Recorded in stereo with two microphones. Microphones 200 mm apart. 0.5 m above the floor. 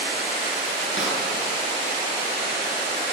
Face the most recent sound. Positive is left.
turn(degrees=75)  # may be behind; listen again after turning